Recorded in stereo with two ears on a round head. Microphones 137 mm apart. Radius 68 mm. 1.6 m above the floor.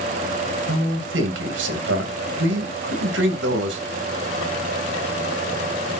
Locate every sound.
0.7 s a man speaking: 85° right, 2 m